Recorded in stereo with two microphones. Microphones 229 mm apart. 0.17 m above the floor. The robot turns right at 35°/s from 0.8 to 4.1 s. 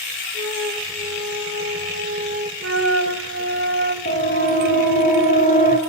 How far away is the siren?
About 4.5 m.